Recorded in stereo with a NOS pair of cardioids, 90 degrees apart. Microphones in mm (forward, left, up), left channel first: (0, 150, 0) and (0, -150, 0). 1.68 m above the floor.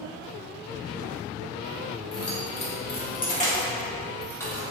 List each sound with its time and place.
2.1 s keys jangling: 55° left, 1.8 m; by 4.6 s 5° left, 3 m